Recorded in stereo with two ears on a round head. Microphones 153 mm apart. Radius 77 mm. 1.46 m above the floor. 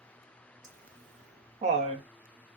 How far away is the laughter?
About 1.9 m.